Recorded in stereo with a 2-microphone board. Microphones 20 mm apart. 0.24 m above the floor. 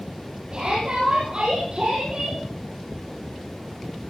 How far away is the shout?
About 8.5 m.